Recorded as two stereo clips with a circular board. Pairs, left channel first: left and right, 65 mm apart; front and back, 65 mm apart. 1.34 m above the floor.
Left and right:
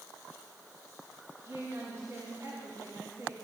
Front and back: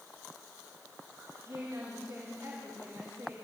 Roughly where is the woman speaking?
Behind right.